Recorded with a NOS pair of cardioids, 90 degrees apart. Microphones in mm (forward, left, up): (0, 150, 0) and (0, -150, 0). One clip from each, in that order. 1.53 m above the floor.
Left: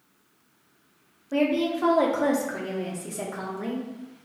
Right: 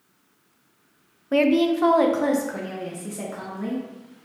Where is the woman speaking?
40° right, 0.6 m; by 3.9 s 15° left, 1.5 m.